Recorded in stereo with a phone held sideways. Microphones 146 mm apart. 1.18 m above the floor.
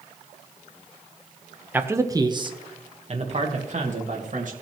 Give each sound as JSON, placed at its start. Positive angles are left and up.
{"t": 1.7, "sound": "a man speaking", "side_deg": -10, "distance_m": 0.9}